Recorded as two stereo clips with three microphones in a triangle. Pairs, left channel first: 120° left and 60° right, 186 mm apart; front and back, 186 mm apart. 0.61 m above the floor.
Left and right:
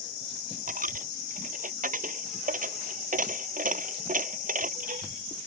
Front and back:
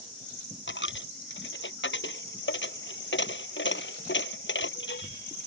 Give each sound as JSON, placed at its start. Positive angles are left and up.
{"t": 0.7, "sound": "a dropped coin", "azimuth_deg": -15}